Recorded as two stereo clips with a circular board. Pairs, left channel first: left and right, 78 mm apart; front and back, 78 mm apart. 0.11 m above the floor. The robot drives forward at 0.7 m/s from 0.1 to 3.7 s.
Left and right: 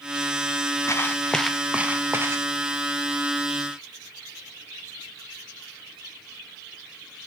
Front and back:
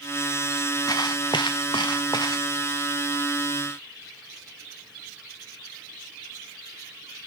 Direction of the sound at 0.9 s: 40° left.